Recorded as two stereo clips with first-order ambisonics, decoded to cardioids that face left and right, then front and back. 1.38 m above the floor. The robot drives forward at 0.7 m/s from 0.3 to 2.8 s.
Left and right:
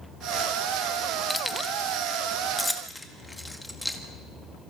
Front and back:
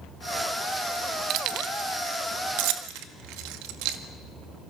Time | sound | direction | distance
1.3 | keys jangling | 170° left | 0.6 m